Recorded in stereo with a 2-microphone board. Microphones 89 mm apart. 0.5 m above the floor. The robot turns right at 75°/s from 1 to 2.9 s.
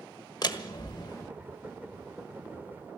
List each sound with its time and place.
0.4 s a door slam: 50° left (ahead or behind), 1.2 m; by 1.2 s 35° left (ahead or behind), 1.2 m